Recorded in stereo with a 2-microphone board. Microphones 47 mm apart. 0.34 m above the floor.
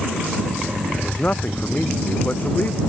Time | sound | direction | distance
1.0 | a man speaking | 40° left (ahead or behind) | ?